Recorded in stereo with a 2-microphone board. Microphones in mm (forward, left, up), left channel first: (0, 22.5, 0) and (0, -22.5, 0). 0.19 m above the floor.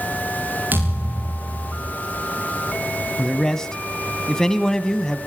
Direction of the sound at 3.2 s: 15° left (ahead or behind).